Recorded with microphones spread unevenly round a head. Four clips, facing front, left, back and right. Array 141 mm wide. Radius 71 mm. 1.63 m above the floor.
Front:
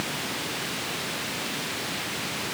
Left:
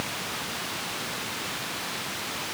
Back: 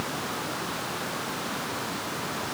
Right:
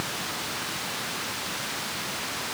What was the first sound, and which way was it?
Only background noise.